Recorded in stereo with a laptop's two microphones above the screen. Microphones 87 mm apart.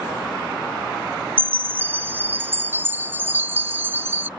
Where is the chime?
20° right (ahead or behind).